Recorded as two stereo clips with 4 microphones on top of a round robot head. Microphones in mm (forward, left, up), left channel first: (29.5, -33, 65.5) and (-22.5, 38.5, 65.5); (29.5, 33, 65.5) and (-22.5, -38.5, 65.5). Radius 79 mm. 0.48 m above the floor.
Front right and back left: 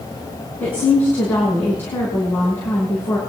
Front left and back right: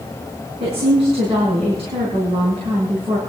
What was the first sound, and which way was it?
A woman speaking, 125° right.